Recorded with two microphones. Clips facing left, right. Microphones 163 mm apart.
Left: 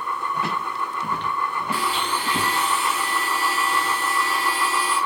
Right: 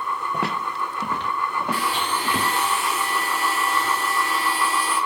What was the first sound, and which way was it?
Footsteps, 65° right (ahead or behind).